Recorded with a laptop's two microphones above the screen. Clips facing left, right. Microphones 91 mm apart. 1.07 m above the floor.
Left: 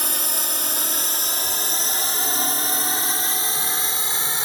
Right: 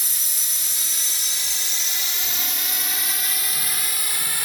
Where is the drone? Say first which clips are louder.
Left 11 dB; 60° left (ahead or behind); by 4.5 s 25° left (ahead or behind).